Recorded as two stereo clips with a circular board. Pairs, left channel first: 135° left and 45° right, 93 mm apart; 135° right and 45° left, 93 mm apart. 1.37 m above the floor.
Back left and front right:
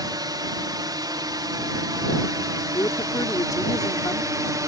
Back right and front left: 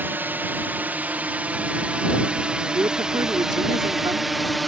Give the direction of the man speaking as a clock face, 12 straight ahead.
9 o'clock.